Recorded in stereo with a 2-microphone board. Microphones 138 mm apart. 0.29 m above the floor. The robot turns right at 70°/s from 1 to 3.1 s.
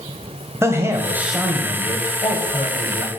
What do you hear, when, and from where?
0.6 s a man speaking: 30° right, 1.4 m; by 3.1 s 115° left, 1.4 m